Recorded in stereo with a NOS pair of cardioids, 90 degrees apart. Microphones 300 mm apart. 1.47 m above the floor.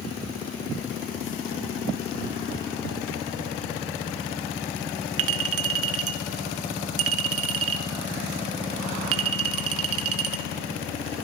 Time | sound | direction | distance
5.2 | a clink | 50° right | 1.3 m